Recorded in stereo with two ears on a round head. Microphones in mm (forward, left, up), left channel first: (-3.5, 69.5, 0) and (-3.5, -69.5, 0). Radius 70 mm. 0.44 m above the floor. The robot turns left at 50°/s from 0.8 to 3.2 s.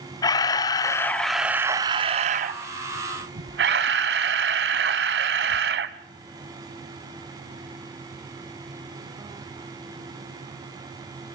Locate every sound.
0.2 s a camera shutter: 25° left, 1.0 m; by 6.0 s 95° right, 1.0 m